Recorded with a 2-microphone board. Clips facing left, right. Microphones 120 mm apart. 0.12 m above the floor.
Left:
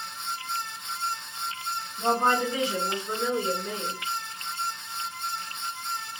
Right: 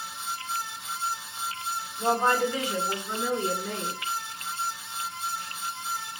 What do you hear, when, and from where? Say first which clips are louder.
2.0 s a woman speaking: even; 25° left (ahead or behind), 1.6 m; by 4.0 s 10° left (ahead or behind), 1.5 m